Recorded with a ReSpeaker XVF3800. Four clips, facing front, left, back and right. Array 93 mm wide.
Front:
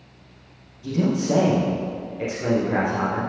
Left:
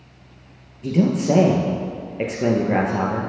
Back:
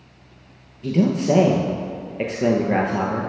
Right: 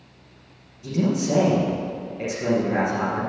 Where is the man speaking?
140° left, 2 m.